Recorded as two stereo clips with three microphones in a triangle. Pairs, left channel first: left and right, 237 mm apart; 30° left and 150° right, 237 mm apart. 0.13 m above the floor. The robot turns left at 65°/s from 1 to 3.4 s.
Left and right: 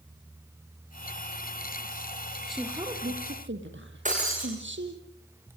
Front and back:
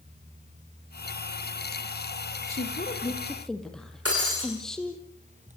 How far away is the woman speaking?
About 3.5 m.